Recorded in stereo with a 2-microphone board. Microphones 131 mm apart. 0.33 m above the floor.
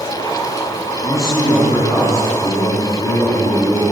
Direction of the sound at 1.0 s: 25° left (ahead or behind).